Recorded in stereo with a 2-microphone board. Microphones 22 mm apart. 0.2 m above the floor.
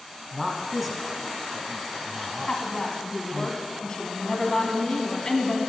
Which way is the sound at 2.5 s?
40° left (ahead or behind).